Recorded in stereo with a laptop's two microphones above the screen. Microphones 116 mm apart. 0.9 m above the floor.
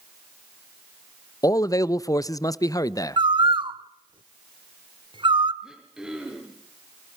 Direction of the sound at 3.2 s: 45° right (ahead or behind).